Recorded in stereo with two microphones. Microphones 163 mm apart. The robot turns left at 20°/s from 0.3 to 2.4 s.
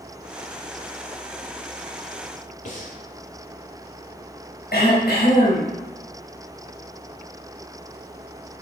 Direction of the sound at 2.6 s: 55° left (ahead or behind).